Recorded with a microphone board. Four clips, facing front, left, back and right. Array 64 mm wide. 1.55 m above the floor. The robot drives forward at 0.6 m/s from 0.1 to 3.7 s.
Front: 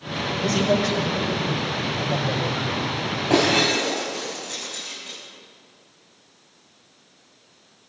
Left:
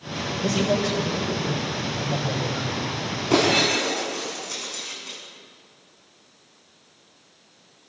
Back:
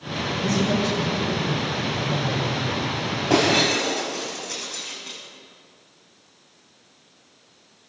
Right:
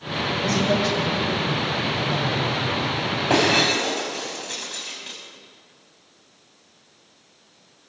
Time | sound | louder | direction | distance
0.4 | a man speaking | even, front 2 dB | 15° right | 8.5 m
3.3 | breaking glass | even, even | 90° right | 6.5 m